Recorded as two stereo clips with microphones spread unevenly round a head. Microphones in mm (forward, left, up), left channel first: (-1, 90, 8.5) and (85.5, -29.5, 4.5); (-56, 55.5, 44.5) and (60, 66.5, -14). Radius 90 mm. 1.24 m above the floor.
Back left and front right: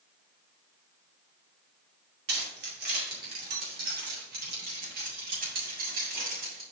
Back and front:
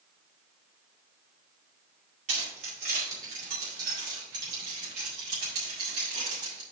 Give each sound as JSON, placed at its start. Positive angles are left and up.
{"t": 2.3, "sound": "keys jangling", "azimuth_deg": -45, "distance_m": 2.5}